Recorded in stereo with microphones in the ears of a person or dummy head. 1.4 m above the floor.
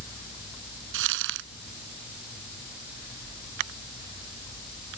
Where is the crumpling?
70° right (ahead or behind).